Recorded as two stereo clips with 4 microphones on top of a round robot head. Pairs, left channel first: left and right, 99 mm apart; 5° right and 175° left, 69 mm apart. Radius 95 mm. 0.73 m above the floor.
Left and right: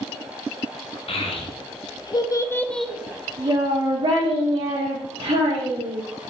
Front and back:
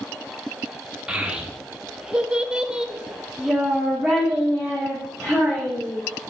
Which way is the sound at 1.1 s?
100° left.